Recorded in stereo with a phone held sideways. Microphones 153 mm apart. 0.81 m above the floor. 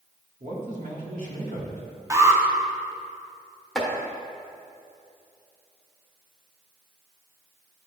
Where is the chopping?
5° left (ahead or behind), 1.1 m.